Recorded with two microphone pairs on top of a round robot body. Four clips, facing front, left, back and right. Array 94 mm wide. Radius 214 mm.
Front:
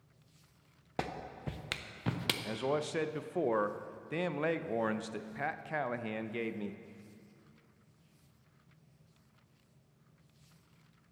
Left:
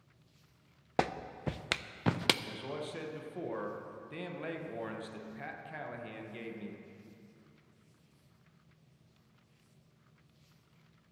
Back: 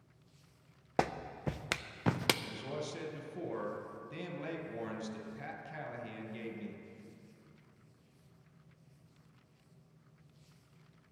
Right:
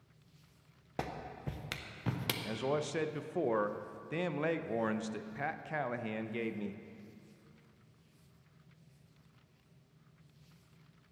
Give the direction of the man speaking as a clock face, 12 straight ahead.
1 o'clock.